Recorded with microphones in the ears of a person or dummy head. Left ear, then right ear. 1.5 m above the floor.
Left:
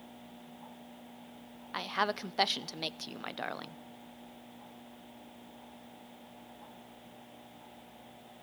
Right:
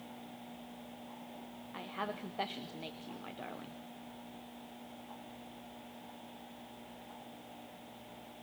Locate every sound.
1.7 s a woman speaking: 70° left (ahead or behind), 0.6 m